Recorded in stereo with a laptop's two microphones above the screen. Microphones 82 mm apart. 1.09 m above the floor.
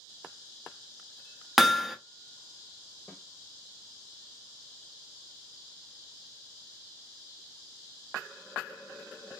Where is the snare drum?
25° left (ahead or behind), 1.3 m.